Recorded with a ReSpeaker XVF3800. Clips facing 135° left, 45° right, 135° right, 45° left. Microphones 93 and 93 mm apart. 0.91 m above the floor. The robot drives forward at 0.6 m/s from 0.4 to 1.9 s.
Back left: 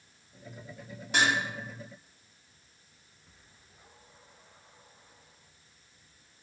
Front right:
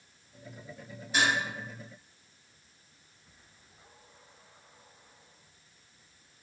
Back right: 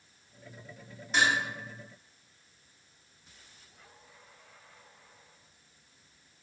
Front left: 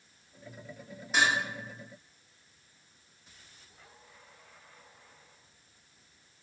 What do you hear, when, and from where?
1.1 s dishes clattering: 130° left, 1.2 m; by 1.4 s 135° left, 1.3 m